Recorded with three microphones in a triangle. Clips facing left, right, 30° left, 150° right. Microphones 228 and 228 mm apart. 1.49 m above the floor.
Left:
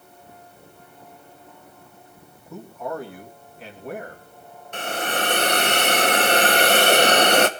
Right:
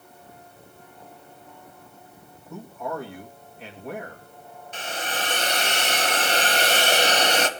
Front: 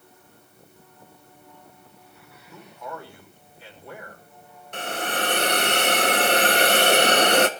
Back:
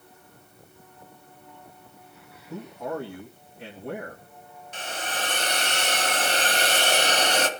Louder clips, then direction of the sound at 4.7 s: Left 6 dB, front 6 dB; 60° left.